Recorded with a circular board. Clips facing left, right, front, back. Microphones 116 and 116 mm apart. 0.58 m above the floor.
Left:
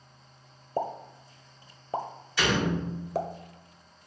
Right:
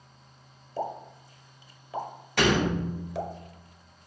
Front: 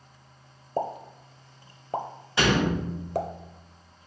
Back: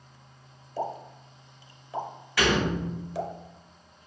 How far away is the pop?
About 0.8 m.